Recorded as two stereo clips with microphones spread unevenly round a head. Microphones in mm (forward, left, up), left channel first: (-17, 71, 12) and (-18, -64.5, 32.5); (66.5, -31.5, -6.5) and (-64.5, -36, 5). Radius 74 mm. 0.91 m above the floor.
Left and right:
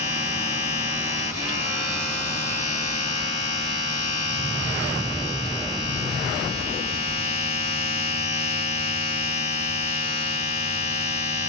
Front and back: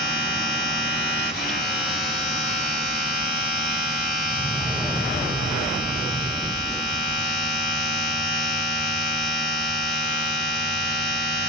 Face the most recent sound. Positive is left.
turn(degrees=45)